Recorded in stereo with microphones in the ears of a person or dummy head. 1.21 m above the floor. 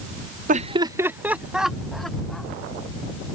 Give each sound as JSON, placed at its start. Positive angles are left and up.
{"t": 0.5, "sound": "laughter", "side_deg": -40}